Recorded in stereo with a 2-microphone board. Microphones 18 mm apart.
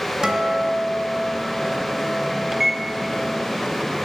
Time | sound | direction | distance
0.2 | a guitar | 40° right (ahead or behind) | 1.3 m
2.5 | a microwave | 15° right (ahead or behind) | 0.7 m